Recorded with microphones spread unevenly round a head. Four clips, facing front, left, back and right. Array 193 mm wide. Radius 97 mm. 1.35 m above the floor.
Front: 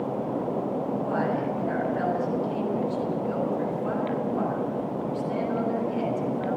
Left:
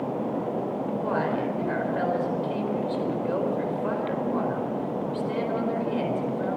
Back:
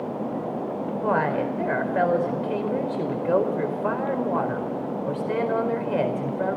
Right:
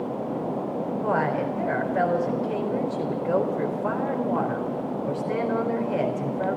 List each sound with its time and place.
1.0 s a woman speaking: 155° right, 4.5 m